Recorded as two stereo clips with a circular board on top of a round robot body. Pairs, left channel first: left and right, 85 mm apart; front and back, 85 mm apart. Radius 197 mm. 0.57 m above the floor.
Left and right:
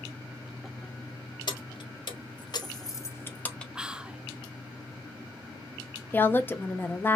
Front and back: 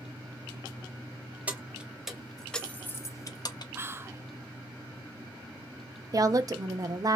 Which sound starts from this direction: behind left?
A woman speaking, at 6.1 s.